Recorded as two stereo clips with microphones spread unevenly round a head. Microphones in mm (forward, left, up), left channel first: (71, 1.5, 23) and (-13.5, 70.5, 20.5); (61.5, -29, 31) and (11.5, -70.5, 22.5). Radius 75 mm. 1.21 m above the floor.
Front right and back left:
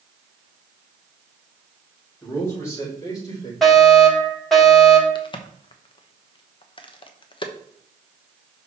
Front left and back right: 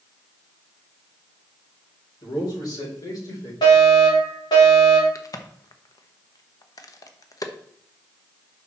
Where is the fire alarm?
50° left, 4 m.